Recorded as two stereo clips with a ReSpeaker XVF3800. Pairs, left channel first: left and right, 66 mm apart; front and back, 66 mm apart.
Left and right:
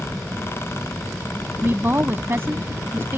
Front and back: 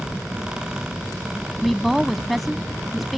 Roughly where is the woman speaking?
Right.